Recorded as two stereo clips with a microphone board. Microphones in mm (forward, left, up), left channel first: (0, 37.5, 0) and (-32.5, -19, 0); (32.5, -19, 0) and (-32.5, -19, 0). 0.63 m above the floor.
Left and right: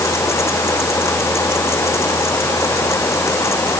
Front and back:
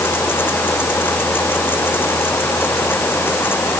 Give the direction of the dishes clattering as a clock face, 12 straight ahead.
I don't hear dishes clattering.